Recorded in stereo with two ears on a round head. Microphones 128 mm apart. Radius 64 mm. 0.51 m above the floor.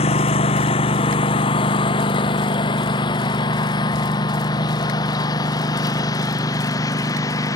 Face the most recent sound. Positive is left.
turn(degrees=25)  # may be behind; listen again after turning